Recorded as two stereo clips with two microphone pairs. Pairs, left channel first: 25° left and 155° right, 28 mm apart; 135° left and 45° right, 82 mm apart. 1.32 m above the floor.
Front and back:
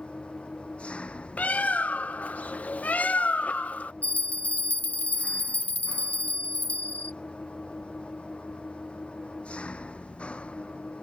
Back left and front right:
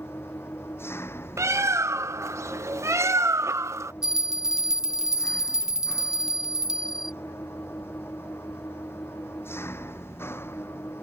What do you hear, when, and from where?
0.0 s an engine running: 70° left
1.4 s a bird: 10° left
4.0 s a bell: 40° left